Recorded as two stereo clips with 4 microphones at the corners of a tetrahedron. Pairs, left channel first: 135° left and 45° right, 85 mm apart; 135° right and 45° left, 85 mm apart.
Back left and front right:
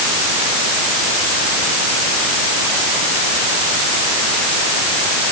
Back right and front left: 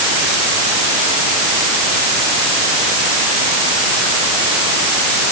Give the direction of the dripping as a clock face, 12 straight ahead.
No dripping in this recording.